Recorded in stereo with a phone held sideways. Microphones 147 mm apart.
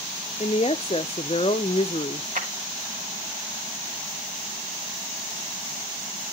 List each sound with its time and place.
0.4 s a woman speaking: 45° left (ahead or behind), 0.6 m
2.4 s a clap: 75° right (ahead or behind), 2 m